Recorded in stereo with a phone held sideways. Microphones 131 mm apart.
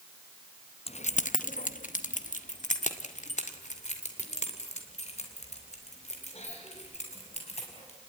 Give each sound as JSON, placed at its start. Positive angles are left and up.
{"t": 0.9, "sound": "keys jangling", "side_deg": 50, "distance_m": 0.6}